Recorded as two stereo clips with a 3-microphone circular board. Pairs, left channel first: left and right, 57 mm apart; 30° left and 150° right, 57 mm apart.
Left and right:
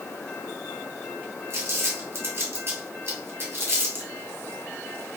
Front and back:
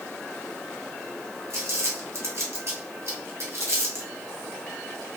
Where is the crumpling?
125° right, 1.3 m.